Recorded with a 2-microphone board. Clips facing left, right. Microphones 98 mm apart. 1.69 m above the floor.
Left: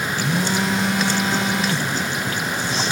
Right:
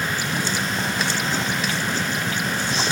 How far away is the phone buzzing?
About 1.5 m.